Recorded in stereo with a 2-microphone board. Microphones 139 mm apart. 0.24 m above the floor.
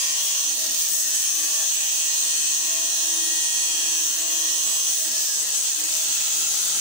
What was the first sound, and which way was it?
Only background noise.